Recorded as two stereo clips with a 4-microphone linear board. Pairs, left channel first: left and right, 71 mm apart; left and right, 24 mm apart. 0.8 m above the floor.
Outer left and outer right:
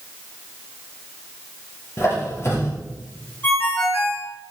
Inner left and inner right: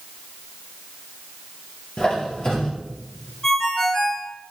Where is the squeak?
40° left (ahead or behind), 4 m.